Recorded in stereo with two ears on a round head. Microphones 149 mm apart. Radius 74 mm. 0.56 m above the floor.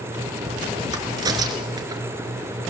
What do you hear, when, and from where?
0.9 s a crack: 25° right (ahead or behind), 1.8 m